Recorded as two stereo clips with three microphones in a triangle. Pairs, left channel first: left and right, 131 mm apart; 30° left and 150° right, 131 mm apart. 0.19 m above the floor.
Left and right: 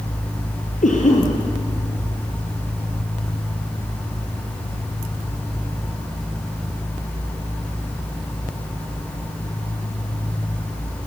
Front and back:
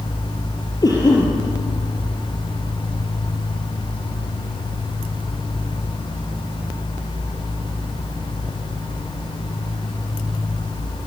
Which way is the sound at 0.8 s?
90° left.